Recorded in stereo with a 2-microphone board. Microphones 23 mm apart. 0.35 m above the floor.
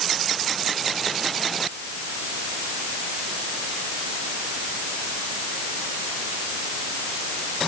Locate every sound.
Only background noise.